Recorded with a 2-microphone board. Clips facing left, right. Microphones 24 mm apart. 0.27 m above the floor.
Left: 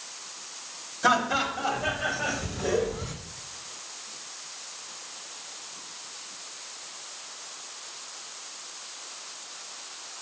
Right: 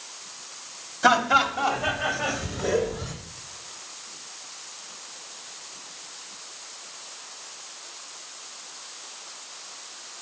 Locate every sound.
1.0 s laughter: 25° right (ahead or behind), 1.3 m; by 3.1 s 10° right (ahead or behind), 1.1 m